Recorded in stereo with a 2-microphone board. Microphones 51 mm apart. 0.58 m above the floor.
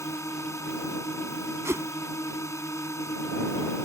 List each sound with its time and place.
0.0 s a drone: 75° left (ahead or behind)
1.6 s a whoosh: 70° right (ahead or behind)